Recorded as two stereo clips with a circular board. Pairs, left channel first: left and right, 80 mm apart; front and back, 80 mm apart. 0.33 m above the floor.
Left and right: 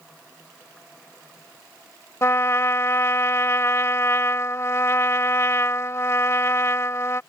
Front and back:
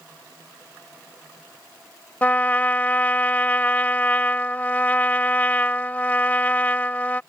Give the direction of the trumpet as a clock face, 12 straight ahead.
10 o'clock.